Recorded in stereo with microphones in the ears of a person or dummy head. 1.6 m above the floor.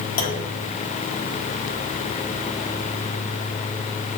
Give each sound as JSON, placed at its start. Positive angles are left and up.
{"t": 0.2, "sound": "a clunk", "side_deg": 70, "distance_m": 1.1}